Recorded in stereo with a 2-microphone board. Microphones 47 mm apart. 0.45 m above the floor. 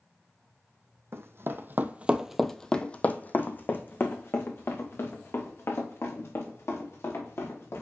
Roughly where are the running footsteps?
Right.